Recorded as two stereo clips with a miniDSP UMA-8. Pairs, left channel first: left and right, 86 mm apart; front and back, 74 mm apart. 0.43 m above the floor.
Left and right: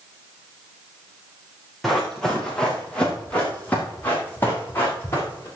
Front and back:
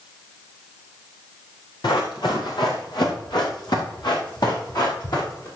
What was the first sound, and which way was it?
Running footsteps, straight ahead.